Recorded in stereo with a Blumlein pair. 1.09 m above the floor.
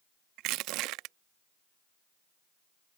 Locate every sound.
0.4 s crushing: 40° right